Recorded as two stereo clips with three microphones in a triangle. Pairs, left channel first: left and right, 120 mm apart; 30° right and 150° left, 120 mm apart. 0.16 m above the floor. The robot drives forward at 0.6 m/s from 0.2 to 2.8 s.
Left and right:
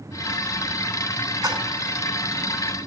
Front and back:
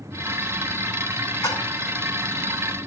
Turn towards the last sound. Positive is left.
turn(degrees=-115)